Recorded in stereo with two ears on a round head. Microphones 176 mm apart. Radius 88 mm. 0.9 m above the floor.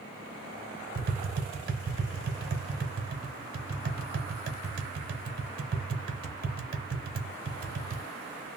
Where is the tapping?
50° right (ahead or behind), 0.7 m.